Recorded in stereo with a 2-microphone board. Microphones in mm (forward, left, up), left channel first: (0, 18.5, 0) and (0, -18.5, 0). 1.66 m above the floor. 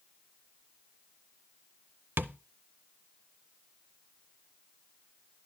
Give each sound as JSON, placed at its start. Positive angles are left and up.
{"t": 2.2, "sound": "tapping", "side_deg": -70, "distance_m": 0.5}